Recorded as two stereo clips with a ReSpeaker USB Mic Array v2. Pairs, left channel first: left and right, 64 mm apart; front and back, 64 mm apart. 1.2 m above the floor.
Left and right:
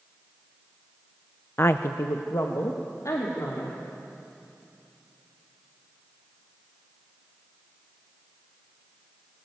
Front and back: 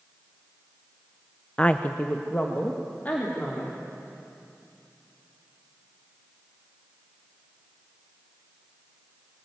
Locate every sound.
1.6 s a woman speaking: 65° left, 0.5 m; by 3.8 s 60° left, 4 m